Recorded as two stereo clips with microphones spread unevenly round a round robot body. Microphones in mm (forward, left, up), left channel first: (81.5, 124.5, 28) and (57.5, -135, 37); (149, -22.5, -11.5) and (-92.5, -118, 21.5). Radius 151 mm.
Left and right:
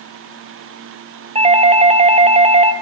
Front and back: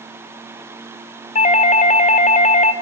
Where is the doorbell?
30° right, 1.8 m.